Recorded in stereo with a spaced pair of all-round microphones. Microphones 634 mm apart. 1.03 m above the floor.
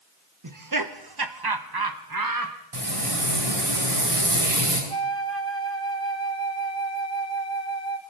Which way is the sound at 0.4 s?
30° right (ahead or behind).